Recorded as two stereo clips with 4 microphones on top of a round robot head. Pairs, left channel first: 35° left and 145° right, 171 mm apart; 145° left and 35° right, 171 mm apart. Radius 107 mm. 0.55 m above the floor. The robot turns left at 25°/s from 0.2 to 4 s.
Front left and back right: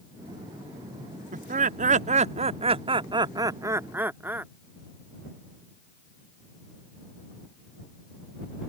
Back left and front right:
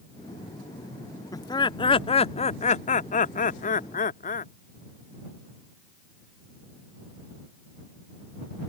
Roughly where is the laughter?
Behind right.